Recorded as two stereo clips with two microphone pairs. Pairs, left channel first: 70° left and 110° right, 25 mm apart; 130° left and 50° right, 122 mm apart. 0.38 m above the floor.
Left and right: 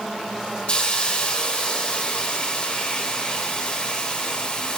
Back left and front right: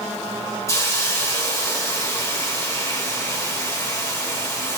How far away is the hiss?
About 1.7 m.